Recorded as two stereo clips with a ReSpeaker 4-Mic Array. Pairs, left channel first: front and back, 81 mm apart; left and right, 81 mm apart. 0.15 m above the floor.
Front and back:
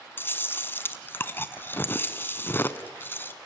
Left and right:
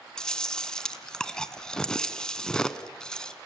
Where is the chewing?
20° left, 1.0 m.